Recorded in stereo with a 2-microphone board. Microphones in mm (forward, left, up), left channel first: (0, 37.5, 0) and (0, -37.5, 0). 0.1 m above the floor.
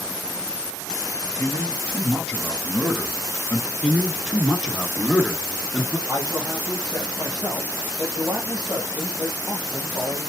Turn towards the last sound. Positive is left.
turn(degrees=-55)  # may be behind; listen again after turning